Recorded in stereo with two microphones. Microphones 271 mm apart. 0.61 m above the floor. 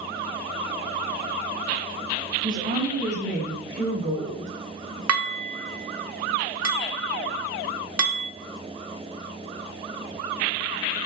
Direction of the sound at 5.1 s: 65° right (ahead or behind).